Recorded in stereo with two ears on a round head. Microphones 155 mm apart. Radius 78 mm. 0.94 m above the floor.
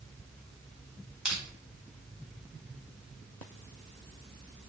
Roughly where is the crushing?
Centre.